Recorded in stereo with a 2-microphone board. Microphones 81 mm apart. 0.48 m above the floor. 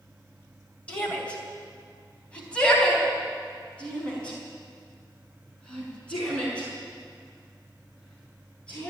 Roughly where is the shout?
Centre.